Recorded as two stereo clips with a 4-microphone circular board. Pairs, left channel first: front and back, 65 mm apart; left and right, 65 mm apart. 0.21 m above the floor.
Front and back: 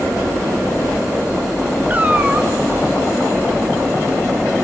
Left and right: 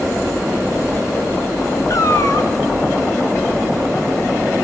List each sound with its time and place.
1.9 s a cat meowing: 115° left, 0.9 m